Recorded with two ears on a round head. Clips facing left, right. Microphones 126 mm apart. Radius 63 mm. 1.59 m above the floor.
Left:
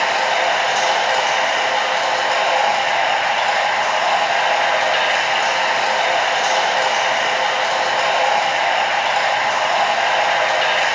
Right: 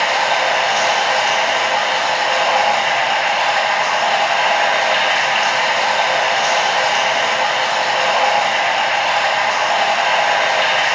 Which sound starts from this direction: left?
Running water, at 0.0 s.